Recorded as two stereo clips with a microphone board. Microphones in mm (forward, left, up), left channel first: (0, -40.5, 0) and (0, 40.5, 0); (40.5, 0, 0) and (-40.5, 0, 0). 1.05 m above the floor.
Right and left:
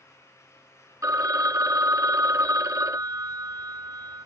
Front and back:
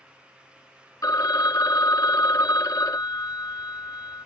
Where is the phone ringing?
45° left.